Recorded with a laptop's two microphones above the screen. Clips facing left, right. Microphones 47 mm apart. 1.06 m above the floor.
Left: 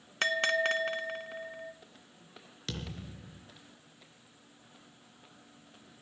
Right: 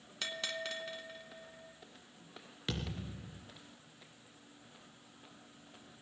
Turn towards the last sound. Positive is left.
turn(degrees=-15)  # may be behind; listen again after turning